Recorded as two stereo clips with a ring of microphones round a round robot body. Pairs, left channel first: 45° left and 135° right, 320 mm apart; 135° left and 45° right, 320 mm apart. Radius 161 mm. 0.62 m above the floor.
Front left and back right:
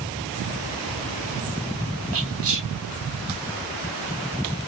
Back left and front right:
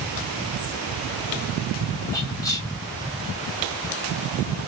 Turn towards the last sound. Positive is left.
turn(degrees=-150)